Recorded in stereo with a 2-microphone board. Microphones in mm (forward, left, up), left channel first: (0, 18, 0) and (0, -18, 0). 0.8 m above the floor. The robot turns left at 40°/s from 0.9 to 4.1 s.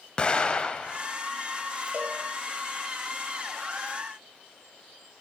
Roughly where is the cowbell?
Right.